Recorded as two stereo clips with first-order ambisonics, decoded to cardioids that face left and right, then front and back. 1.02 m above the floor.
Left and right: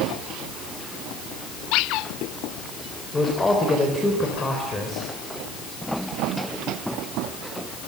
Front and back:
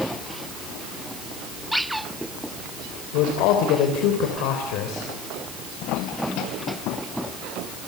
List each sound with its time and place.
3.1 s a man speaking: 10° left, 3.5 m